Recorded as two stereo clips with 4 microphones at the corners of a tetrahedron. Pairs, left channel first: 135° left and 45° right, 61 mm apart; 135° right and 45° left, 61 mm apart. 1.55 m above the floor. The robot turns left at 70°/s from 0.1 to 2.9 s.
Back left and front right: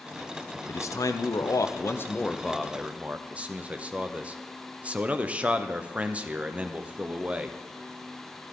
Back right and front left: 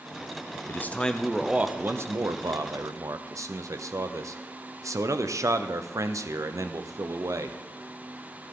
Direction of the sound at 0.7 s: 175° left.